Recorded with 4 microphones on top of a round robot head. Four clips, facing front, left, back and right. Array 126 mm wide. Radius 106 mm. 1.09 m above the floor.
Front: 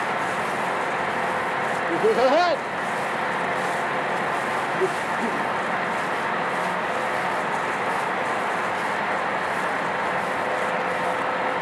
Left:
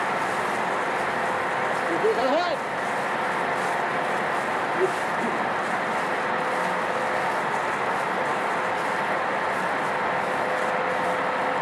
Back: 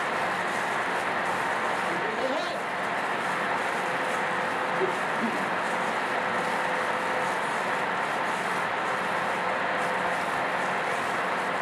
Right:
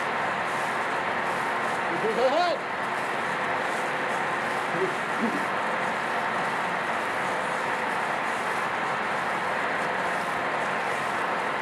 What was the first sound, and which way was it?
Laughter, 20° left.